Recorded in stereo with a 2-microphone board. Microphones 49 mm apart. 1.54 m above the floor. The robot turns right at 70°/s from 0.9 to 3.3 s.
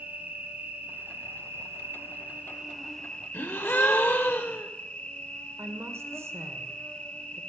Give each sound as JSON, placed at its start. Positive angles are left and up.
{"t": 0.0, "sound": "an insect", "azimuth_deg": -135, "distance_m": 1.1}
{"t": 3.3, "sound": "a gasp", "side_deg": 55, "distance_m": 1.0}
{"t": 5.6, "sound": "a woman speaking", "side_deg": -75, "distance_m": 1.3}